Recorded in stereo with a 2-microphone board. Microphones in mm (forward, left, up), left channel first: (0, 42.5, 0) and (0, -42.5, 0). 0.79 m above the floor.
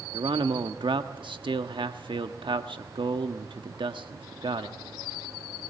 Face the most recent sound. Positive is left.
turn(degrees=-65)  # may be behind; listen again after turning